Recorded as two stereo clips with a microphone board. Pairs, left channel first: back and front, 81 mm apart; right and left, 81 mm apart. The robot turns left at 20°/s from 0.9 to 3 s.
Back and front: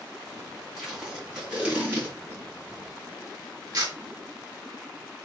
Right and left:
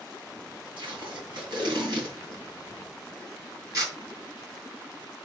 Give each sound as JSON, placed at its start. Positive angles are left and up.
{"t": 0.8, "sound": "tape being pulled", "azimuth_deg": 85, "distance_m": 5.0}